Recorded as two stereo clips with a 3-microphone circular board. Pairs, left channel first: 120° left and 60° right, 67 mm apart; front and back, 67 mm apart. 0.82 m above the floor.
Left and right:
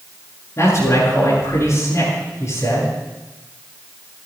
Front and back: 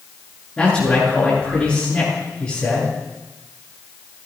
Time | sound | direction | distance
0.6 | a man speaking | 75° left | 9.5 m